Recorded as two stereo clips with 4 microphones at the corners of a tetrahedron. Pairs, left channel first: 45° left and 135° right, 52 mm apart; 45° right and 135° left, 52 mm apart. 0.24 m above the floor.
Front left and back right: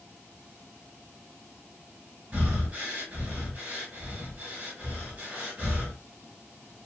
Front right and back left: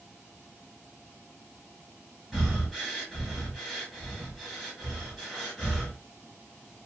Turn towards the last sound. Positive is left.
turn(degrees=-145)